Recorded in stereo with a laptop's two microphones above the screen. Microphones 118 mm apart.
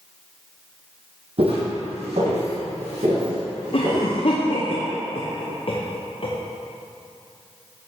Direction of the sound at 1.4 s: 55° right (ahead or behind).